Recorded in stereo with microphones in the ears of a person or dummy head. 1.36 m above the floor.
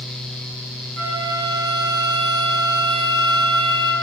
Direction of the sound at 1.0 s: 55° right (ahead or behind).